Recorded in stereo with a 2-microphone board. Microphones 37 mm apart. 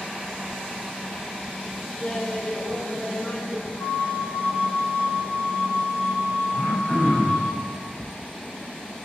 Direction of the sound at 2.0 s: 25° left (ahead or behind).